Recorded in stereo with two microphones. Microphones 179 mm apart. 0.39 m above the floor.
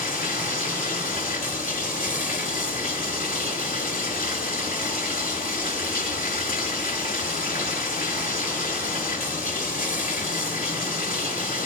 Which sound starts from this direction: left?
Running water, at 0.0 s.